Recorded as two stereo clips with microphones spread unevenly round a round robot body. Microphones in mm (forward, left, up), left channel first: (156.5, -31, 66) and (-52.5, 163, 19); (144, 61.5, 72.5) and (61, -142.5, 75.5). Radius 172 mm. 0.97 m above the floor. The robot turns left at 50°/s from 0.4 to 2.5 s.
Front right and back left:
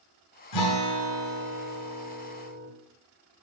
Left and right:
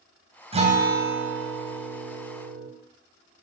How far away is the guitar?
About 3 m.